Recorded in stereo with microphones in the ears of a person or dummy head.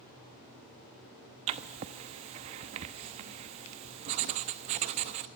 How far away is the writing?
About 0.9 m.